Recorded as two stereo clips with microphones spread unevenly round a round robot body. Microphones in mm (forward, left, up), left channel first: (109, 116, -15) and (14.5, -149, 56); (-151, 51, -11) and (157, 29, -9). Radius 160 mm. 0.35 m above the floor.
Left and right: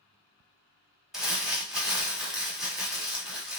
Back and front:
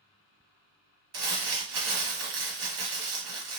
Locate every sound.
1.1 s crumpling: 20° right, 1.1 m